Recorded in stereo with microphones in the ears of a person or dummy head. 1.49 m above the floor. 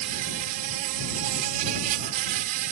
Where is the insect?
40° right (ahead or behind).